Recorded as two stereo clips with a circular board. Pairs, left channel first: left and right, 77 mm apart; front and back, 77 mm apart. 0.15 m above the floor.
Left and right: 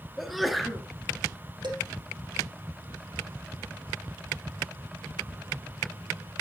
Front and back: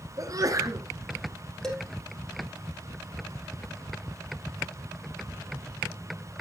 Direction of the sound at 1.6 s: 80° right.